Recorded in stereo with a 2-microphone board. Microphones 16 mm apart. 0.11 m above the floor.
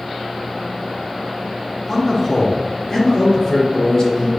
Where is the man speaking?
15° left (ahead or behind), 2.5 m; by 4.3 s 55° left (ahead or behind), 3 m.